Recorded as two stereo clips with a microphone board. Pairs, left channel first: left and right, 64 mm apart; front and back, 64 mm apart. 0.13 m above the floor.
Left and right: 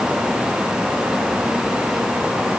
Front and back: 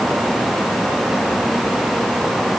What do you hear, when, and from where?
Only background noise.